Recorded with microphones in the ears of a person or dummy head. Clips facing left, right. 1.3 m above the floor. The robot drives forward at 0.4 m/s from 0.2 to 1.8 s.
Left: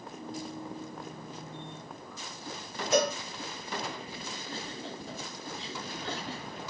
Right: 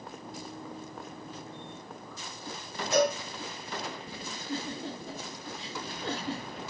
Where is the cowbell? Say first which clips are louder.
Right 1 dB; 80° left, 1.8 m.